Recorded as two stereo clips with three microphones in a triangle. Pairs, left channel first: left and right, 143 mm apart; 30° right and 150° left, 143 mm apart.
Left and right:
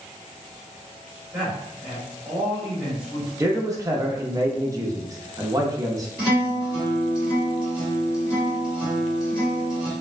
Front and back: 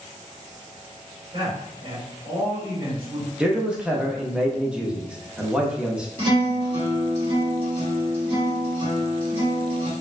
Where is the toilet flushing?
No toilet flushing in this recording.